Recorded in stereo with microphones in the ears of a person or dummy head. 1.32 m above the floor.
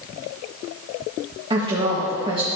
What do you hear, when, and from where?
1.5 s a woman speaking: 25° right (ahead or behind), 1.4 m